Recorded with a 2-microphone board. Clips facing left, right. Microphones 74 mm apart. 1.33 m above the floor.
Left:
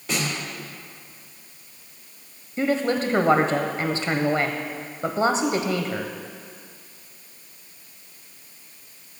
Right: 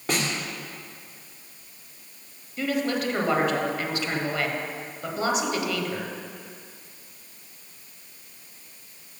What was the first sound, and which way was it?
A snare drum, 50° right (ahead or behind).